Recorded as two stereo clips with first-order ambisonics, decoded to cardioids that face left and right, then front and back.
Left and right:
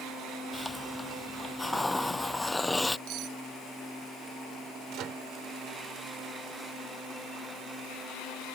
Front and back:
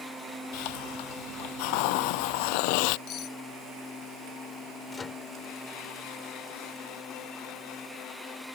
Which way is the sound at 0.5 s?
5° left.